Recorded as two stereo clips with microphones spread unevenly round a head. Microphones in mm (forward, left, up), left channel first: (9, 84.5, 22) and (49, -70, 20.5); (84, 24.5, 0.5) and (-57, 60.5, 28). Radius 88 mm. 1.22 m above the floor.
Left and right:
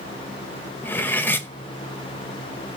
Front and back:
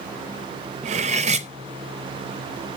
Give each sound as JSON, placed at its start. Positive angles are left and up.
{"t": 0.8, "sound": "cutlery clinking", "azimuth_deg": 180, "distance_m": 0.5}